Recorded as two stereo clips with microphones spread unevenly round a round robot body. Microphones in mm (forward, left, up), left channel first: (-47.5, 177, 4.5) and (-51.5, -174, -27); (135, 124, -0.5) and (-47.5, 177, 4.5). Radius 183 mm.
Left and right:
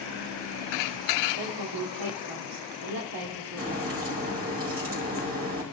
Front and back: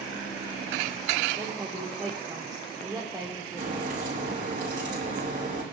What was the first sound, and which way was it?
A woman speaking, 110° right.